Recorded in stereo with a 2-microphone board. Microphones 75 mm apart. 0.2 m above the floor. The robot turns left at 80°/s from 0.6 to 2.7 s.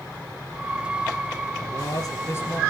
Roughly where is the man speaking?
Left.